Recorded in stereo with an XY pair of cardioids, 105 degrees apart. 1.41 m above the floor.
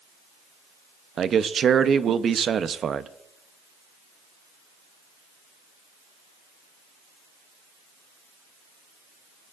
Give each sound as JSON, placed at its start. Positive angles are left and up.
{"t": 1.2, "sound": "a man speaking", "azimuth_deg": -50, "distance_m": 0.8}